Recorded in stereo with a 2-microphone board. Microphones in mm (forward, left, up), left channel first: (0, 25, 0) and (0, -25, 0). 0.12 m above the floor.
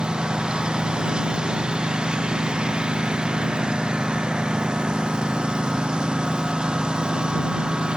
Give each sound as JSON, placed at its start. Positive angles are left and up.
{"t": 0.0, "sound": "a lawn mower", "side_deg": -15}